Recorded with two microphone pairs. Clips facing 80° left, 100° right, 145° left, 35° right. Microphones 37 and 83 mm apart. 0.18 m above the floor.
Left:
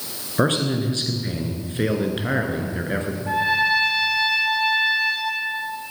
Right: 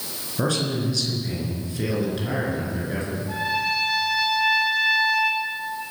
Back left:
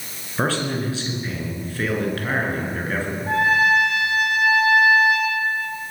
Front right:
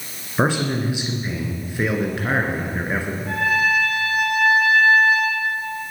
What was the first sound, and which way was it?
A man speaking, 35° left.